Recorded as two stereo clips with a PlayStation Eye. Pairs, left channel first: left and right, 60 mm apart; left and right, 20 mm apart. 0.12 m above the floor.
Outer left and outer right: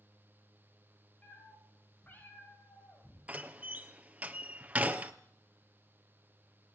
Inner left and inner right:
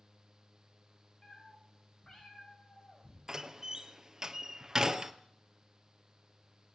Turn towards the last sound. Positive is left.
turn(degrees=-25)  # may be behind; listen again after turning